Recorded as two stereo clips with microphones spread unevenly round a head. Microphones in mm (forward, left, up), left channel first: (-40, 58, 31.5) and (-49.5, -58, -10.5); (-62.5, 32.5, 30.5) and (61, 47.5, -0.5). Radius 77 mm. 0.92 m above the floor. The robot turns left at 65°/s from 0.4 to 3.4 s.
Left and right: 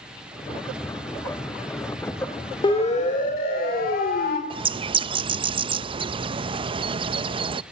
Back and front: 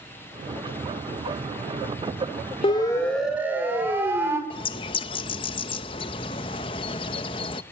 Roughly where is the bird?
Right.